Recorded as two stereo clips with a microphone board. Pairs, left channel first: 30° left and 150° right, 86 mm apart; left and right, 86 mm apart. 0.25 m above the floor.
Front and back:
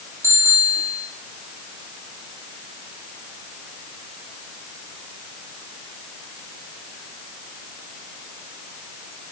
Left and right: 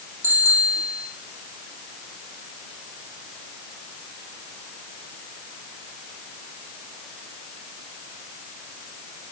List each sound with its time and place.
0.2 s a bicycle bell: 35° right, 9 m